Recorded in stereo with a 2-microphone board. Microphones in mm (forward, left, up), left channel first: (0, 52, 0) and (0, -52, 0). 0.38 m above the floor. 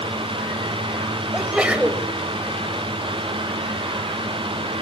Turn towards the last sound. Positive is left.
turn(degrees=-10)  # may be behind; listen again after turning